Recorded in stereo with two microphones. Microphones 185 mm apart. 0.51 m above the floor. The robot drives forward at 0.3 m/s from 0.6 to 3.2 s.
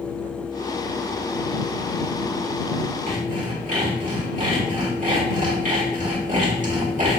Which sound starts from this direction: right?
Sawing, at 3.1 s.